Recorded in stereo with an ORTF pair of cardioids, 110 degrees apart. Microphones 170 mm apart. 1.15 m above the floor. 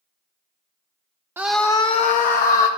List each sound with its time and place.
1.4 s a scream: 15° right, 0.5 m; by 2.7 s 65° left, 1.1 m